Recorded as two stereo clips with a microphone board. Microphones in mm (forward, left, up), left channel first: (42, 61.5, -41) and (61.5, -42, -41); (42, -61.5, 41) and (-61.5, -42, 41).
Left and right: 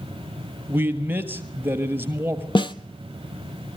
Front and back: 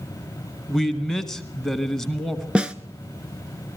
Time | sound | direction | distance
0.7 | a man speaking | 90° right | 1.2 m
2.5 | a snare drum | 95° left | 0.7 m